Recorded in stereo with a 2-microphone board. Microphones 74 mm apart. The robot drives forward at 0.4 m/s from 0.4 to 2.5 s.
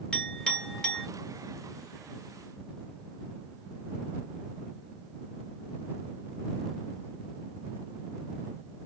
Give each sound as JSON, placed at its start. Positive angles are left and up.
{"t": 0.1, "sound": "a clink", "side_deg": 10, "distance_m": 1.6}